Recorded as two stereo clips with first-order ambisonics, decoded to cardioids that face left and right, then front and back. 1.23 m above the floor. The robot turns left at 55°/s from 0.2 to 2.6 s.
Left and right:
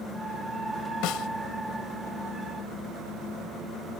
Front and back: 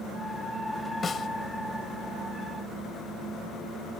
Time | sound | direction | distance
1.0 | a snare drum | 70° left | ?